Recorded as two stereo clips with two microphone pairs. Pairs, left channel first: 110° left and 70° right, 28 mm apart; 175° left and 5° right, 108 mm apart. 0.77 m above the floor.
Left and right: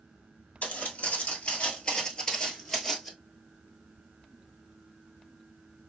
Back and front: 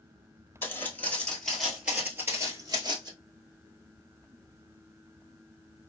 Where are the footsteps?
110° left, 1.4 m; by 3.1 s 25° left, 1.2 m.